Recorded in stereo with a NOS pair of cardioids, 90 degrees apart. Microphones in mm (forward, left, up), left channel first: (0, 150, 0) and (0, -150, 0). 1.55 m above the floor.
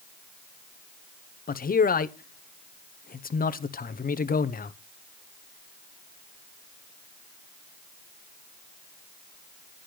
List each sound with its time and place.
1.5 s a man speaking: 30° left, 0.9 m